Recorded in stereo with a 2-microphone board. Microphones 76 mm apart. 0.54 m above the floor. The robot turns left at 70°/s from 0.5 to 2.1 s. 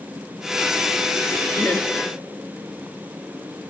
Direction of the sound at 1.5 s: 5° left (ahead or behind).